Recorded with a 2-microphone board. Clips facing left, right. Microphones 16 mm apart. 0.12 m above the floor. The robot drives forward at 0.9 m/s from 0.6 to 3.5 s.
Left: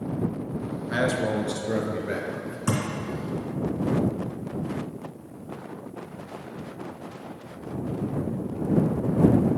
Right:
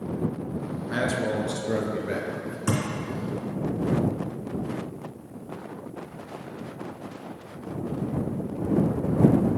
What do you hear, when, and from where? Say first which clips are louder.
0.9 s a man speaking: left 2 dB; 10° left (ahead or behind), 1.2 m; by 2.6 s 5° left (ahead or behind), 2 m
2.7 s a thud: even; 20° right (ahead or behind), 3 m